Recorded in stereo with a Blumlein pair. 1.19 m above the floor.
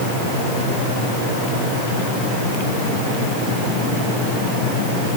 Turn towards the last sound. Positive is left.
No sound to turn to.